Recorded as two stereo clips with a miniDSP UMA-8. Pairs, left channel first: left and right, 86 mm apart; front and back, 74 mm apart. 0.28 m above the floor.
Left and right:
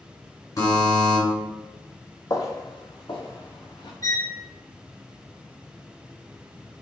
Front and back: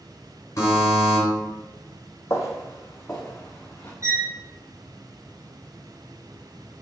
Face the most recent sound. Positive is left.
turn(degrees=135)